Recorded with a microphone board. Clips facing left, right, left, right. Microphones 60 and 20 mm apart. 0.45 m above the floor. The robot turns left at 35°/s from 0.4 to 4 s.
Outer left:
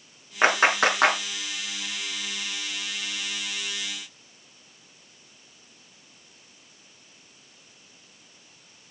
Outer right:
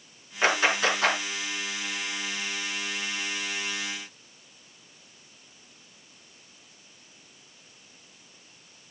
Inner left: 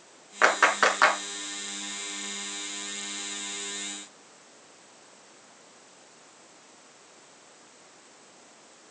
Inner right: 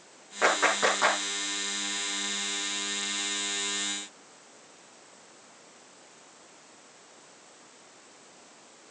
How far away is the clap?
About 5 m.